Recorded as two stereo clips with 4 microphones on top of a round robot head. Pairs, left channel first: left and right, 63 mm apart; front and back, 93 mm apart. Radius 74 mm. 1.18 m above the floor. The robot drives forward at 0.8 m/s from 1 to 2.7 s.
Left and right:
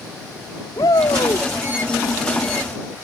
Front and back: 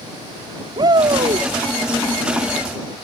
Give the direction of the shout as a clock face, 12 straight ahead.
7 o'clock.